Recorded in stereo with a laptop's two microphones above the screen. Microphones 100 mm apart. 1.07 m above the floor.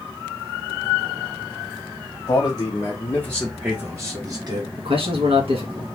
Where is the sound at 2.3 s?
50° left (ahead or behind), 1.1 m; by 4.7 s 50° right (ahead or behind), 1.2 m.